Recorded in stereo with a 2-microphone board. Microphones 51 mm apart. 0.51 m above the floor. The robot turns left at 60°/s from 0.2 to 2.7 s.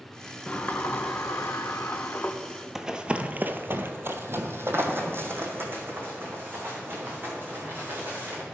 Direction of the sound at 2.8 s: 10° right (ahead or behind).